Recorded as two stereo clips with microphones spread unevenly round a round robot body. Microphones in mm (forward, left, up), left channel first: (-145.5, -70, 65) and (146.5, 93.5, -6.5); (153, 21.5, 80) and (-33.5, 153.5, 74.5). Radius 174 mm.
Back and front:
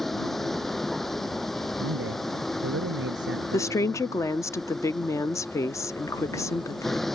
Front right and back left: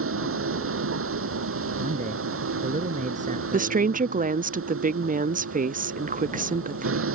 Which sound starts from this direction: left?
A man speaking, at 1.8 s.